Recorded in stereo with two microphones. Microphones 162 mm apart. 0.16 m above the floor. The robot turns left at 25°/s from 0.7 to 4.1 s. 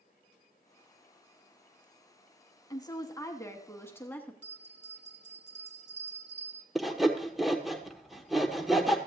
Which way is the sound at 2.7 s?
25° left (ahead or behind).